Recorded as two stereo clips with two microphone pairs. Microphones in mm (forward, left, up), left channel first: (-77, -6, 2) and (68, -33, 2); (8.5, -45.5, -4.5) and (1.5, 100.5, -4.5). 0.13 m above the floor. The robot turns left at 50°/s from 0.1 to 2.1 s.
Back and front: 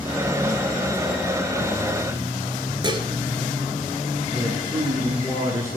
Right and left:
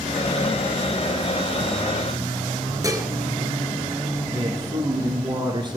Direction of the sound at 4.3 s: 50° left.